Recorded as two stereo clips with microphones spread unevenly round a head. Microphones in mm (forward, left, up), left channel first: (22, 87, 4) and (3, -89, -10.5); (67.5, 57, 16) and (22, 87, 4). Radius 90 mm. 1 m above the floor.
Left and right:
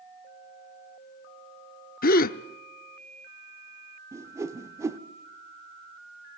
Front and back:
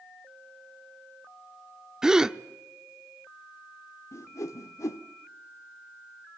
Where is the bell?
No bell in this recording.